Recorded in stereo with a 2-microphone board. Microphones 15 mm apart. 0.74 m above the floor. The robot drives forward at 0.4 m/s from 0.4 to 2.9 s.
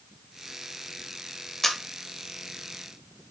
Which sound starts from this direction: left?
A camera shutter, at 1.6 s.